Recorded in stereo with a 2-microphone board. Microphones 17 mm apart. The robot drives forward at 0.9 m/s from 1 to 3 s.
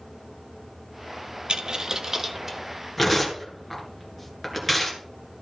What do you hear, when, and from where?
1.5 s a dropped coin: 65° right (ahead or behind), 0.5 m; by 2.6 s 25° right (ahead or behind), 1.2 m
3.0 s tearing paper: 5° right (ahead or behind), 2 m